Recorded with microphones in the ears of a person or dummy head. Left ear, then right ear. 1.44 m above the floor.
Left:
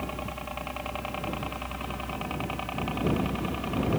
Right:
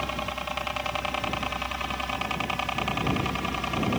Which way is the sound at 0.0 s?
65° right (ahead or behind).